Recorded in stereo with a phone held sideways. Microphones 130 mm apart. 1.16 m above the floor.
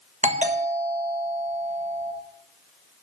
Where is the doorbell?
65° right (ahead or behind), 1.5 m.